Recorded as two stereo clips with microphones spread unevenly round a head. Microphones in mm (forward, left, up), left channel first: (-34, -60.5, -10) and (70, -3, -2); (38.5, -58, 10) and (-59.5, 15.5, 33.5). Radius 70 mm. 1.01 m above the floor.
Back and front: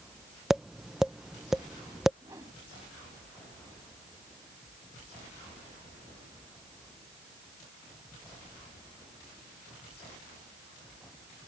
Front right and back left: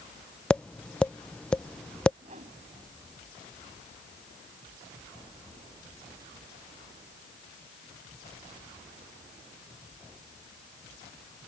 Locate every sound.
0.5 s tapping: 60° right
2.2 s a whoosh: 100° left